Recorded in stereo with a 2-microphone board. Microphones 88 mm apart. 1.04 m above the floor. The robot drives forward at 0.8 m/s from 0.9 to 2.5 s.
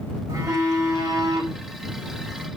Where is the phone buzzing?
35° right (ahead or behind), 4 m; by 2.5 s 50° right (ahead or behind), 3 m.